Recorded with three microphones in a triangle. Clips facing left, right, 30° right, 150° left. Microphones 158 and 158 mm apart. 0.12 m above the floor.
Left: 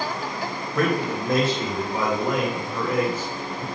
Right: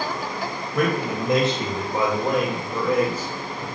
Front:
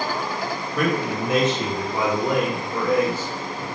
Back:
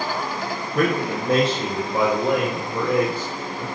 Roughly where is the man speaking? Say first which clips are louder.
Even, back 2 dB; behind.